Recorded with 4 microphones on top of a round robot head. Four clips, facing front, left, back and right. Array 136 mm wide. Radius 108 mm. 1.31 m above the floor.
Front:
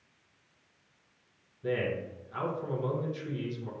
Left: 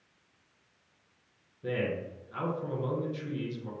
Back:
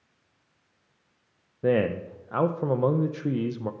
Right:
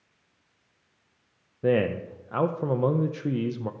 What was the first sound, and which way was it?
A man speaking, 140° right.